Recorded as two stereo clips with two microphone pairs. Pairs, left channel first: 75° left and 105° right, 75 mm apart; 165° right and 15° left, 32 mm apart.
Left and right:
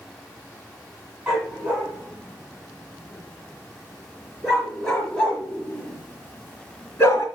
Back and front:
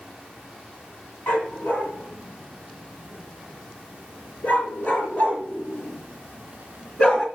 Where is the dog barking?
175° left, 8 m; by 7.3 s 130° left, 3 m.